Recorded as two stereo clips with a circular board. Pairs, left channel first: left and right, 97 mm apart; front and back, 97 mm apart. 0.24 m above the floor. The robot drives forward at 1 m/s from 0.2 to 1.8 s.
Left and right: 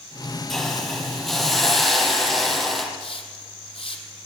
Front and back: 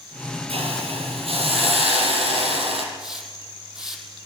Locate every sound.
0.5 s a hiss: 175° left, 5 m
3.0 s a hiss: 95° left, 5 m